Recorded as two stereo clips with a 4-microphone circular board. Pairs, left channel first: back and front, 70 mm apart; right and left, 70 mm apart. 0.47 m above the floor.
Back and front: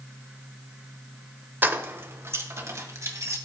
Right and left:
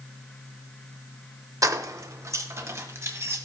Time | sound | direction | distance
1.6 | keys jangling | 60° left | 0.9 m